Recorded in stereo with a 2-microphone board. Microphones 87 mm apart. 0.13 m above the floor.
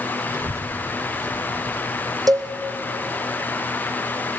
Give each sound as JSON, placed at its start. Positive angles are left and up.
{"t": 0.3, "sound": "a child speaking", "side_deg": -35, "distance_m": 1.4}
{"t": 2.3, "sound": "a cowbell", "side_deg": -50, "distance_m": 1.9}